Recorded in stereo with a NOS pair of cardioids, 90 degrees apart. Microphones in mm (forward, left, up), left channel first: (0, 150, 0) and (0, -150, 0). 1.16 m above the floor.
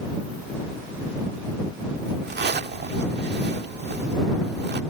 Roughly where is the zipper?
Ahead right.